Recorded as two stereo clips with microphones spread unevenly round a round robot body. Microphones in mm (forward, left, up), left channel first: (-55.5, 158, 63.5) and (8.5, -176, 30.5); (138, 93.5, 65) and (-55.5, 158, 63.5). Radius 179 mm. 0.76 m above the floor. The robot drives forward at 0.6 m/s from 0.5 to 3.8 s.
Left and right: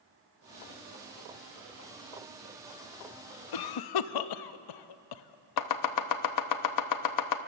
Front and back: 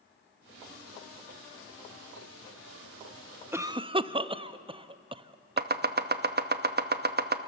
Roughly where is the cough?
Left.